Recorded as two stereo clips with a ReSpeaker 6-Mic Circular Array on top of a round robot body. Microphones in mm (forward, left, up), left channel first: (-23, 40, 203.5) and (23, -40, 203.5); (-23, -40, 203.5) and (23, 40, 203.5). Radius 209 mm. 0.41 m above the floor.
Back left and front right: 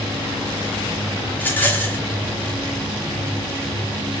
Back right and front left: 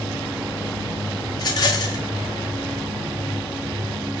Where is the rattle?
170° right, 0.5 m.